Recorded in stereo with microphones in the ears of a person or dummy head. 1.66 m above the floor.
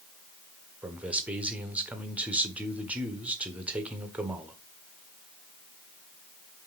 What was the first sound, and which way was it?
A man speaking, 5° right (ahead or behind).